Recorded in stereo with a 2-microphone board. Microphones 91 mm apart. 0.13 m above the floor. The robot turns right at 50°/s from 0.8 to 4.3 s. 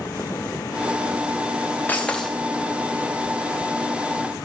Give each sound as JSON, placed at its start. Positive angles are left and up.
{"t": 1.9, "sound": "breaking glass", "side_deg": 20, "distance_m": 2.0}